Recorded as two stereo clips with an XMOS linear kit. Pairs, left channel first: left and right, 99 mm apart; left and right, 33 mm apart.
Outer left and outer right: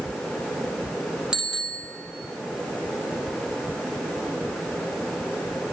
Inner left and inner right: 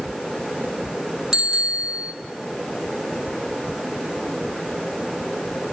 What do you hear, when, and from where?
1.3 s a bicycle bell: 10° right (ahead or behind), 5.5 m